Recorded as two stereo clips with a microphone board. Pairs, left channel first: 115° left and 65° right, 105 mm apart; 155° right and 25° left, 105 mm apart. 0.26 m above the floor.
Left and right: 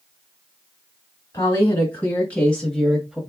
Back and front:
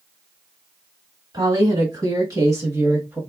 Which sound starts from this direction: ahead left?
A woman speaking, at 1.3 s.